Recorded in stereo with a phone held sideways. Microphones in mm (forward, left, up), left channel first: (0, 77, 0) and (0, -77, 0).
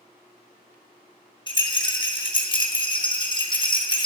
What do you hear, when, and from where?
1.5 s a rattle: 30° left (ahead or behind), 0.9 m